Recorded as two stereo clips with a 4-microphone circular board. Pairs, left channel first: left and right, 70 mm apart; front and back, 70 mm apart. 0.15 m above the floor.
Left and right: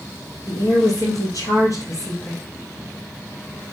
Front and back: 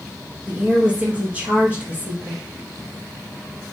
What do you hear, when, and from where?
0.5 s a woman speaking: 110° left, 4 m; by 2.4 s 120° left, 3 m